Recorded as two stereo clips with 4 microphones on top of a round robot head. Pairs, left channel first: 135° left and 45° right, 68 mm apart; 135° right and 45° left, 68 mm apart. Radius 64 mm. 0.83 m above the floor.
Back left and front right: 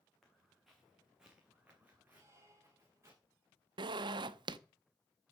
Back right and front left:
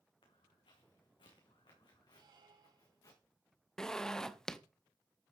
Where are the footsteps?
135° right, 4.5 m; by 3.2 s 95° right, 4 m.